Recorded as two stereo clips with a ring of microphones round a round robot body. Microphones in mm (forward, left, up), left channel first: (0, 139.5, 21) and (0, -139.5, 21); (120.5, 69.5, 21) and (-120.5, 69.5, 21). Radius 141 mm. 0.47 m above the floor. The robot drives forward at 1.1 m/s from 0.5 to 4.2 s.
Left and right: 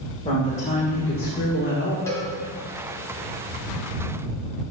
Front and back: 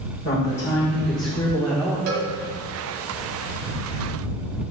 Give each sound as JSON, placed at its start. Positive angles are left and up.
{"t": 0.2, "sound": "a woman speaking", "azimuth_deg": 25, "distance_m": 1.9}
{"t": 2.1, "sound": "a cowbell", "azimuth_deg": 170, "distance_m": 1.2}